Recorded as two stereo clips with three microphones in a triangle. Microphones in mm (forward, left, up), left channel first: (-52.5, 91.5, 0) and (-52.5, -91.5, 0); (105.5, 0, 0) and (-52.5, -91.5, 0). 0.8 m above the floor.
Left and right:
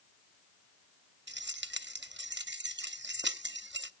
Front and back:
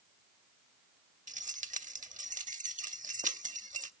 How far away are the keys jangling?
About 0.8 m.